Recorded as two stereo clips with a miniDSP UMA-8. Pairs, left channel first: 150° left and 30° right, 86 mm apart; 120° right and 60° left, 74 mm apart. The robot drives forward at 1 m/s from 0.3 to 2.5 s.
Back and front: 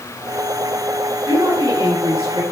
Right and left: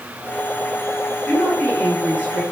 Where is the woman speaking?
55° right, 7.5 m; by 2.4 s 65° right, 6.5 m.